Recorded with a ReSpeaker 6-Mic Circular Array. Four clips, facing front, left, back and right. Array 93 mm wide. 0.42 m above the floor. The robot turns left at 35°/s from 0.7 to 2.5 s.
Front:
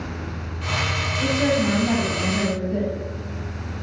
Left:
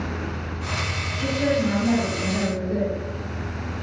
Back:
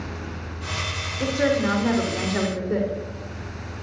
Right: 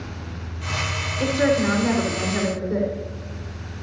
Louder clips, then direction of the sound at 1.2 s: Right 3 dB, even; 125° right.